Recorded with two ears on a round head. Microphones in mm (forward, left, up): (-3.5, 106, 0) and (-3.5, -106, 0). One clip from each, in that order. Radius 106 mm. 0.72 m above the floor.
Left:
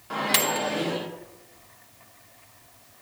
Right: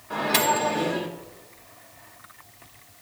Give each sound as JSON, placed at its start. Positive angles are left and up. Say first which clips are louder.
{"t": 0.1, "sound": "a microwave", "louder": "right 2 dB", "side_deg": 45, "distance_m": 1.0}